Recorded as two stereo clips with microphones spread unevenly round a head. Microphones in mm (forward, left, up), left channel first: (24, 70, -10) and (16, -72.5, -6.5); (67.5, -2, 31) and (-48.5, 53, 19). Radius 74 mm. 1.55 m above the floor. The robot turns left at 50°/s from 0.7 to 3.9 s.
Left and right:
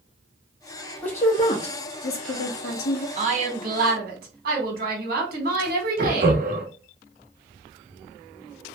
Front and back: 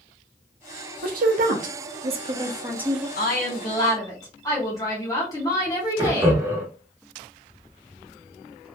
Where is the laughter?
130° right, 0.9 m.